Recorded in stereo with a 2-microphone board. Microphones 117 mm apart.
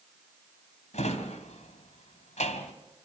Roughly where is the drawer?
Left.